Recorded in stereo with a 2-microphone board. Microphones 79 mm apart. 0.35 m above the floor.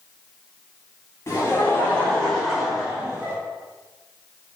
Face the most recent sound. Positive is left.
turn(degrees=-25)  # may be behind; listen again after turning